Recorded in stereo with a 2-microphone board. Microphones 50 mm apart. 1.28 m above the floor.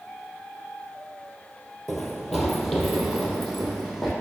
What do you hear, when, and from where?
1.9 s running footsteps: 5° left (ahead or behind), 1.6 m; by 4.1 s centre (ahead or behind), 3 m